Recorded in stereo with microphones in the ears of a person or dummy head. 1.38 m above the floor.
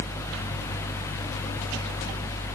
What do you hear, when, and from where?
Only background noise.